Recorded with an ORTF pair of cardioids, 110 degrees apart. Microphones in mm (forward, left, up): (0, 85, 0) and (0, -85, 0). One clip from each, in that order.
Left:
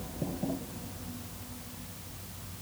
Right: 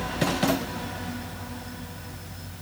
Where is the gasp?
I don't hear a gasp.